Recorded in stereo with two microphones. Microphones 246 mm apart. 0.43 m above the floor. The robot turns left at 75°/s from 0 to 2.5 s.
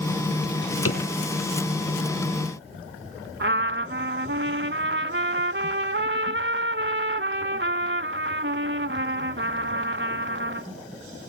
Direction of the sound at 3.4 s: 50° right (ahead or behind).